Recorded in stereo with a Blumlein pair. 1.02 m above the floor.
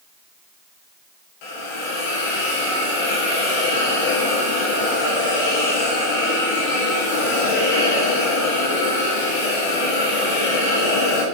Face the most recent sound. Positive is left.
turn(degrees=45)